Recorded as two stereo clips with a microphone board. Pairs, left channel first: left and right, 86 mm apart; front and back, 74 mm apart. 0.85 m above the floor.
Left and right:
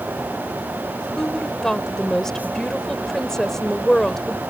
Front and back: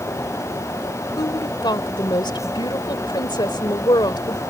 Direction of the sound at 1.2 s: 5° left.